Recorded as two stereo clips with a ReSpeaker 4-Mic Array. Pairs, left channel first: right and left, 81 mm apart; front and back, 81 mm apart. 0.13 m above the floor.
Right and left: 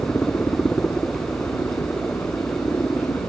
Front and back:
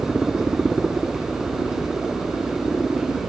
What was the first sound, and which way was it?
A helicopter, 100° right.